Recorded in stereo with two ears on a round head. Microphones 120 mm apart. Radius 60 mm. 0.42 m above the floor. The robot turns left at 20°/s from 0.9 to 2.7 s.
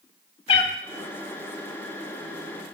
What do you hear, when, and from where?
0.5 s a cat meowing: 45° left (ahead or behind), 0.7 m